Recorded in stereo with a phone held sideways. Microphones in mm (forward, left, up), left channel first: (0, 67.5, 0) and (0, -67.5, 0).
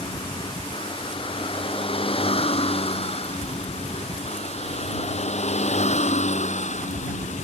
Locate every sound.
0.0 s a vehicle: 40° left (ahead or behind); by 7.5 s 65° left (ahead or behind)